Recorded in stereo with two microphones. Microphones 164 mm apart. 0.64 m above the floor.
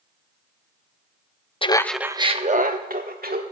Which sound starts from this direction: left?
Laughter, at 1.6 s.